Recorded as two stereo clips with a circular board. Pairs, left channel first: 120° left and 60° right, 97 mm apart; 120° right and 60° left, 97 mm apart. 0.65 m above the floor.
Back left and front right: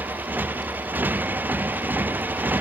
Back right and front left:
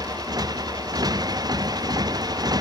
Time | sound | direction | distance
0.0 | a motorcycle | 10° left | ?